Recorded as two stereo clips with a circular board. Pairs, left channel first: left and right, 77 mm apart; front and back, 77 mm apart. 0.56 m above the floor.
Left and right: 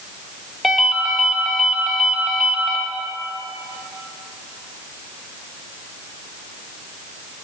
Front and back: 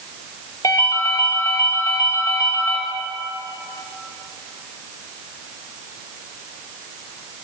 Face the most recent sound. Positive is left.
turn(degrees=-5)